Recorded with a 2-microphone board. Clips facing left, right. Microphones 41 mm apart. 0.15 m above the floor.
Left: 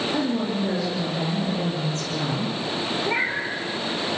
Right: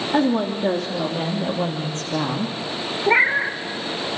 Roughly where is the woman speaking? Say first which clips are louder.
Right 4 dB; right.